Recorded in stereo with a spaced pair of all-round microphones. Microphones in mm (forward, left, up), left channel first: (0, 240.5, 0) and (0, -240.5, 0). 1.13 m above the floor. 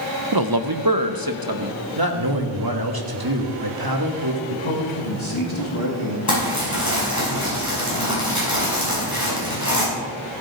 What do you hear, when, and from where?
0.3 s a man speaking: 50° right (ahead or behind), 0.6 m; by 1.8 s 45° right (ahead or behind), 1.3 m
2.0 s a man speaking: 45° right (ahead or behind), 1.6 m
4.5 s a man speaking: 75° left (ahead or behind), 2 m
6.3 s crumpling: 35° left (ahead or behind), 5.5 m